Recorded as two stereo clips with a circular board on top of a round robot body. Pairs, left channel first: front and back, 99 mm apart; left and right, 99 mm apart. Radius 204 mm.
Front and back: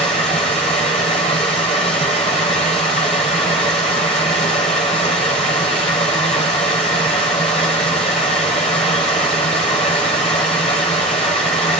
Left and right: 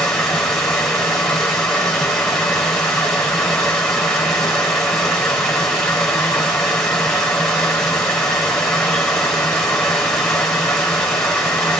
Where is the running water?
15° left, 0.8 m.